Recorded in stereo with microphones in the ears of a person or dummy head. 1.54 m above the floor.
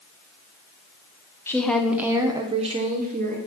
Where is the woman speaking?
10° left (ahead or behind), 0.9 m; by 3.4 s 45° right (ahead or behind), 1.2 m.